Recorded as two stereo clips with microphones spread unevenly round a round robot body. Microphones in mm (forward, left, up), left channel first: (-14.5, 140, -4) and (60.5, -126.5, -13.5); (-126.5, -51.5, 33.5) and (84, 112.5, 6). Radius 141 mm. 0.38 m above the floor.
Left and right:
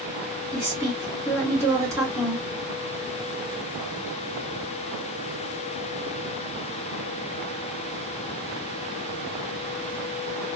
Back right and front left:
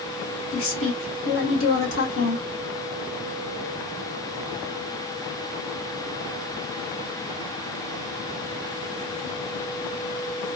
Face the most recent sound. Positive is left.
turn(degrees=-150)